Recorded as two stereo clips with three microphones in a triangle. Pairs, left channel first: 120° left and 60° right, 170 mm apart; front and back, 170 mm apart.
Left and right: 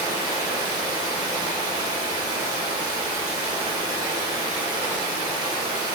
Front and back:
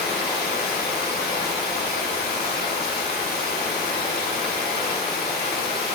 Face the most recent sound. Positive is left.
turn(degrees=5)